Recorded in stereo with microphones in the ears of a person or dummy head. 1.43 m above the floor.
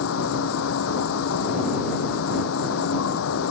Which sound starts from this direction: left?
An insect, at 0.0 s.